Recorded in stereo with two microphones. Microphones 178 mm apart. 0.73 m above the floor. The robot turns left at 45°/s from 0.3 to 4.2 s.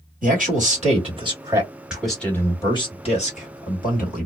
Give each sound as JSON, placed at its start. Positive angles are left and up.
{"t": 0.2, "sound": "a man speaking", "azimuth_deg": -100, "distance_m": 1.7}